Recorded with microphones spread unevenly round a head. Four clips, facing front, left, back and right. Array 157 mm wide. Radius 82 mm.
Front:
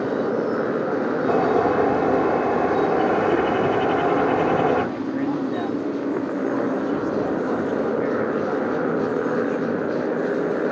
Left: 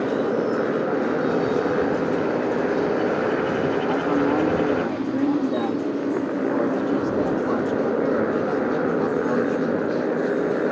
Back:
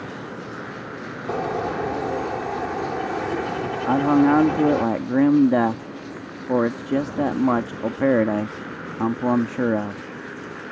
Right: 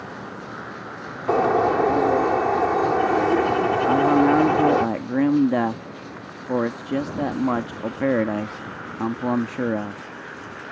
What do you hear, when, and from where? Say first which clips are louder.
0.0 s a motorcycle: left 14 dB, front 12 dB; 40° left
1.3 s a bird: right 2 dB, front 5 dB; 60° right
3.9 s a man speaking: right 7 dB, back 2 dB; 165° right